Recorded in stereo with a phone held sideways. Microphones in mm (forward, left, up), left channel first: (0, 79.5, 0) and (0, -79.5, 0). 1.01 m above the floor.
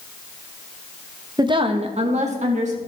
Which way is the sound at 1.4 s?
25° right (ahead or behind).